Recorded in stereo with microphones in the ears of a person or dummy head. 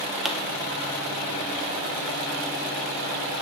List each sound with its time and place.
0.2 s a pop: centre (ahead or behind), 0.5 m